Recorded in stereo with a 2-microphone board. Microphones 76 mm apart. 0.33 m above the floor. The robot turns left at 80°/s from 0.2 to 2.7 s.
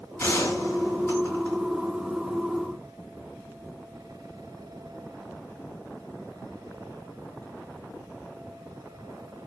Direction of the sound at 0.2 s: 125° left.